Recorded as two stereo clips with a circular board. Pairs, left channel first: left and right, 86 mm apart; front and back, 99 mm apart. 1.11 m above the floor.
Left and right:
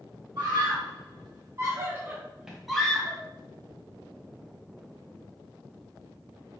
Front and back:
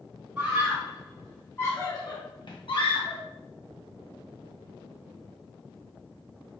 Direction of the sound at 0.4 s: 105° right.